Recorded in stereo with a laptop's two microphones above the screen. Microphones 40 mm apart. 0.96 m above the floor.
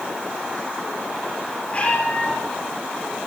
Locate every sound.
1.7 s a cat meowing: 35° left (ahead or behind), 9 m